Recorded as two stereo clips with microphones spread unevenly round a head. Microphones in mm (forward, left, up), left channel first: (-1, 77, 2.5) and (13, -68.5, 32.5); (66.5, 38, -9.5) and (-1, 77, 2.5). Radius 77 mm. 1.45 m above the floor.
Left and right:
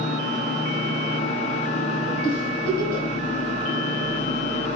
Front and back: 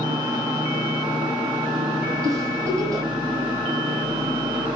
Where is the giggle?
125° left, 4 m.